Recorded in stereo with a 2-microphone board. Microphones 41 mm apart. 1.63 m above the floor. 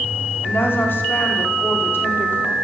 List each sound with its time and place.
0.4 s a woman speaking: 60° left (ahead or behind), 5 m